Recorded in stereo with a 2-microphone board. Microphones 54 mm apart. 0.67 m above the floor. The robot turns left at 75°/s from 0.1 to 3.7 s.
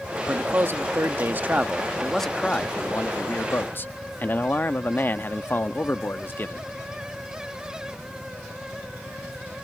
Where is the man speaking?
45° right; by 6.7 s 60° left.